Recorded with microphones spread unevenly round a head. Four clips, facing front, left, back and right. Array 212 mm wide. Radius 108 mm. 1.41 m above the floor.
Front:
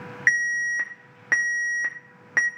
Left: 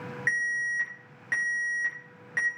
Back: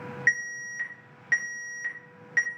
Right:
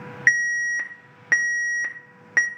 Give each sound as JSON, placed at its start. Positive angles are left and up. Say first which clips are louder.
{"t": 0.3, "sound": "an alarm", "louder": "right 8 dB, front 6 dB", "azimuth_deg": -45, "distance_m": 1.8}